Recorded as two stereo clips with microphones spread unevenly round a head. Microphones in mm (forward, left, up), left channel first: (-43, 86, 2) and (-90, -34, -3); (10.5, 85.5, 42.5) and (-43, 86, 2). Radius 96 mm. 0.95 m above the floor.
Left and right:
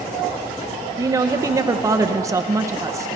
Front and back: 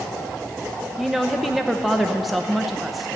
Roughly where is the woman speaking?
Behind.